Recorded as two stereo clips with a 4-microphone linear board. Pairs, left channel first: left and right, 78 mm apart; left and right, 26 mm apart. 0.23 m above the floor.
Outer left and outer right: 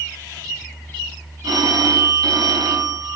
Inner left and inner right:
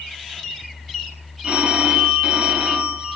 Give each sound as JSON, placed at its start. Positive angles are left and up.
{"t": 1.4, "sound": "a phone ringing", "side_deg": -55, "distance_m": 1.3}